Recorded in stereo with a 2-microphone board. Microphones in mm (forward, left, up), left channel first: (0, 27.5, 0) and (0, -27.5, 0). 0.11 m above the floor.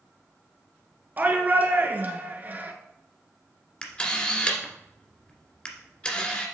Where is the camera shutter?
20° left (ahead or behind), 1.9 m.